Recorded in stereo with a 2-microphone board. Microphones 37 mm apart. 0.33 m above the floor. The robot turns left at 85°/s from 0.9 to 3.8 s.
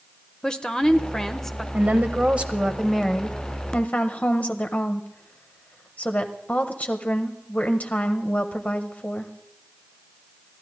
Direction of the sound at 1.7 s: 80° right.